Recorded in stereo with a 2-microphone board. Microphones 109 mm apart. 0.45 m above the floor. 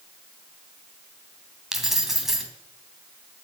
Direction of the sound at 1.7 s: 5° right (ahead or behind).